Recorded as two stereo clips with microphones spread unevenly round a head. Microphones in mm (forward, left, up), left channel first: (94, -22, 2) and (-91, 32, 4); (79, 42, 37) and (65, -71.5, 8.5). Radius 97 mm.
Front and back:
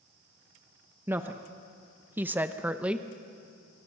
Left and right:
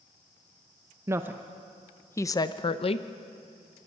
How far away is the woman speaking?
About 0.8 m.